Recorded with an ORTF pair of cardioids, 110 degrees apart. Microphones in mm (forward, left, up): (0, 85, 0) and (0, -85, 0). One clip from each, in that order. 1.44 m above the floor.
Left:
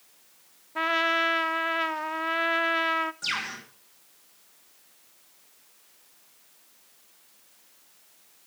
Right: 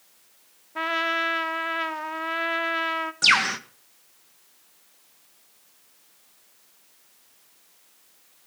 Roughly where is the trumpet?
Ahead.